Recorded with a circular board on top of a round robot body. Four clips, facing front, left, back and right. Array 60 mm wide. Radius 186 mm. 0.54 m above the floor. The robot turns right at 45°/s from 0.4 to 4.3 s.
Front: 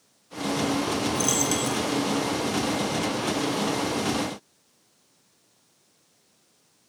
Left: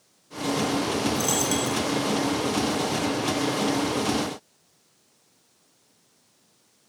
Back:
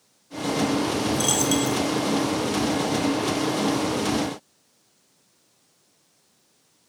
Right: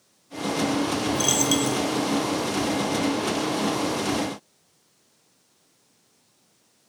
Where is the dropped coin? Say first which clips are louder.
Right 2 dB, back 3 dB; 135° right, 1.2 m; by 1.8 s 110° right, 1.2 m.